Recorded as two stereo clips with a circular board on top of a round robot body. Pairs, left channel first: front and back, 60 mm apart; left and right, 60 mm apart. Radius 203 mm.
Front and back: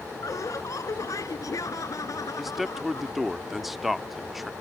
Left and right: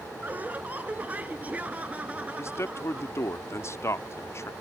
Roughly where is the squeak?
I don't hear a squeak.